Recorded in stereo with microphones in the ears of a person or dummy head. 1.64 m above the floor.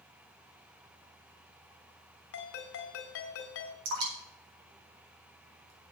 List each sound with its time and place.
2.3 s a ringtone: 60° left (ahead or behind), 2.5 m
3.9 s dripping: 75° right (ahead or behind), 5 m